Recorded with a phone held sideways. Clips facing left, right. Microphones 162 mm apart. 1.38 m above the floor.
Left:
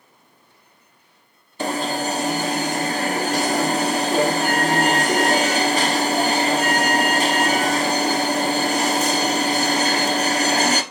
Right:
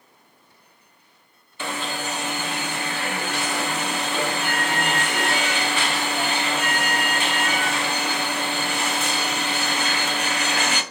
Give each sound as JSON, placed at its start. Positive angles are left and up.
{"t": 1.6, "sound": "an alarm", "side_deg": 40, "distance_m": 1.1}